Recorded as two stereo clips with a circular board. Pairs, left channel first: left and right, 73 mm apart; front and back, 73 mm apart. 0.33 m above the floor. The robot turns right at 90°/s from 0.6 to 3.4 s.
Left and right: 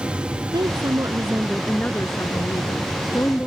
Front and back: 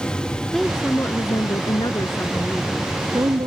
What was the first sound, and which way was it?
A woman speaking, 90° right.